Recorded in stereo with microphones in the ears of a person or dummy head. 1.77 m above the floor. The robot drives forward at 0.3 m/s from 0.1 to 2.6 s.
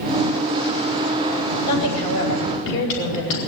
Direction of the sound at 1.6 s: 40° left (ahead or behind).